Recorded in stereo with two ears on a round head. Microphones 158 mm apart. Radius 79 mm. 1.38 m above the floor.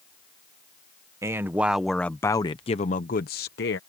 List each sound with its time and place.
1.2 s a man speaking: 15° right (ahead or behind); by 3.8 s 65° left (ahead or behind)